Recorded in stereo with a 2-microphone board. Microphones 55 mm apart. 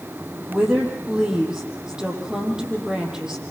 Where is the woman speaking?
10° right (ahead or behind), 6 m.